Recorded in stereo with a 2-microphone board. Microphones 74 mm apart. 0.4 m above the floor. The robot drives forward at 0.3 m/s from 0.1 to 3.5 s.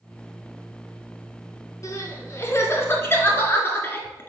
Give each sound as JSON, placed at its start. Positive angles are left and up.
{"t": 1.8, "sound": "crying", "side_deg": 50, "distance_m": 0.9}